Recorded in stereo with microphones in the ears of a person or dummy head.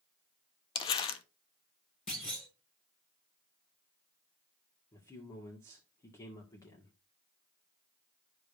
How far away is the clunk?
About 6 m.